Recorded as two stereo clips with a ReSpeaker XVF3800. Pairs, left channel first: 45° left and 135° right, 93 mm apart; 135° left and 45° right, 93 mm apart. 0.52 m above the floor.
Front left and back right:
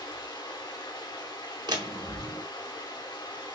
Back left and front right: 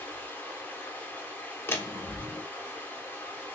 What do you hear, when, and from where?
0.0 s running water: 70° left, 0.9 m
1.7 s a door slam: 165° right, 0.6 m